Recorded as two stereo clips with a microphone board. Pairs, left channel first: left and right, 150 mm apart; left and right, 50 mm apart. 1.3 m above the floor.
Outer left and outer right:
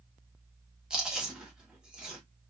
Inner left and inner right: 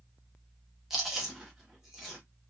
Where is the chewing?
5° right (ahead or behind), 0.9 m.